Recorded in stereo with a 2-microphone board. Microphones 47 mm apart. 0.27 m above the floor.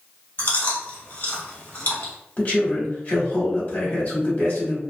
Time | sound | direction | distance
0.4 | chewing | 45° left (ahead or behind) | 1.3 m
2.4 | a man speaking | 45° left (ahead or behind) | 1.2 m